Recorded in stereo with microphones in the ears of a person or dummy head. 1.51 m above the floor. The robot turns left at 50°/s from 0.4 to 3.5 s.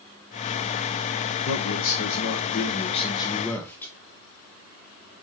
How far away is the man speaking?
About 1.1 m.